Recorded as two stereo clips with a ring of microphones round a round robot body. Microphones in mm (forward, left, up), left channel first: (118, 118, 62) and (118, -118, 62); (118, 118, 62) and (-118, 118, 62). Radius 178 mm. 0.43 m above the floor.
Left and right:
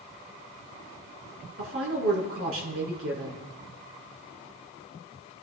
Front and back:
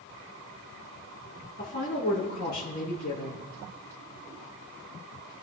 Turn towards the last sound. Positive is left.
turn(degrees=-65)